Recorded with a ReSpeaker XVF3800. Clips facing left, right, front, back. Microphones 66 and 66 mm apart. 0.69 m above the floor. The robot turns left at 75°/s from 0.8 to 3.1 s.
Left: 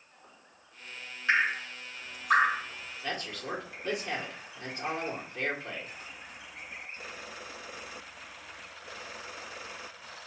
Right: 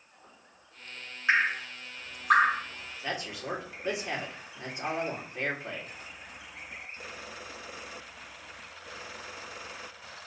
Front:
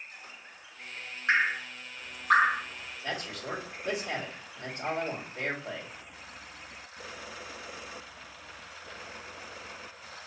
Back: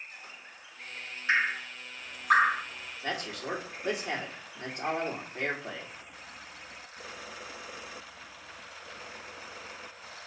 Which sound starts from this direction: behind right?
A man speaking, at 3.0 s.